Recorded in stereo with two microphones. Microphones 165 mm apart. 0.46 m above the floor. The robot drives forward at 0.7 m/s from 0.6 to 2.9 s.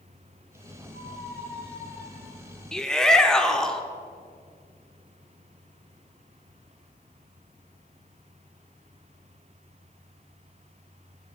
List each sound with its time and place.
0.9 s a squeak: 50° left (ahead or behind), 3.5 m; by 2.6 s 35° left (ahead or behind), 4 m
2.7 s a shout: 5° left (ahead or behind), 0.8 m